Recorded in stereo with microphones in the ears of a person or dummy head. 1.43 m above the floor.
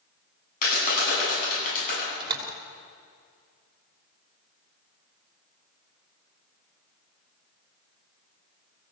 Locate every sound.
0.6 s a clap: 55° left (ahead or behind), 9.5 m
2.2 s a door slam: 20° right (ahead or behind), 3 m